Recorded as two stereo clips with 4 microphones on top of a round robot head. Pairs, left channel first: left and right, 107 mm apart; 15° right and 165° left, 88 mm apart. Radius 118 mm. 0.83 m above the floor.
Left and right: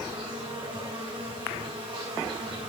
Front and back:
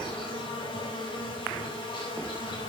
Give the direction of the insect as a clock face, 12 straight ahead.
1 o'clock.